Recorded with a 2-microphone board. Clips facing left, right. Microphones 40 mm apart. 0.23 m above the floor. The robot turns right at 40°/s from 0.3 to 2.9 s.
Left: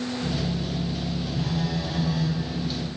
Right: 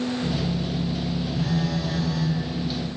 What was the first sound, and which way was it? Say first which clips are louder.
A phone buzzing: right 2 dB; 15° right.